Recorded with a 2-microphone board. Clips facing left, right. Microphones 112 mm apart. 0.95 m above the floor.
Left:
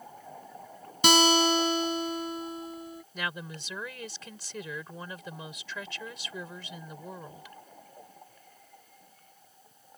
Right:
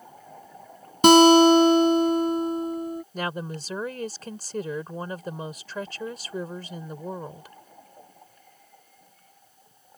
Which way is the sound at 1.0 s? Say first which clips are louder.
Right 11 dB; 45° right (ahead or behind).